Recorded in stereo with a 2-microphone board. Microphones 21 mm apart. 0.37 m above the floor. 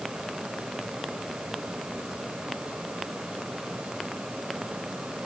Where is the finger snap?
I don't hear a finger snap.